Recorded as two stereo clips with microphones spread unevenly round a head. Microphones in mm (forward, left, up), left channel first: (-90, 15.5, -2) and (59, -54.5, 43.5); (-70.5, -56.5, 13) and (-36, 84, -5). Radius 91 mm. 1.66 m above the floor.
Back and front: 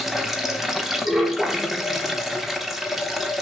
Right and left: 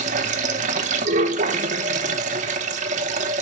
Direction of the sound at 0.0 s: 45° left.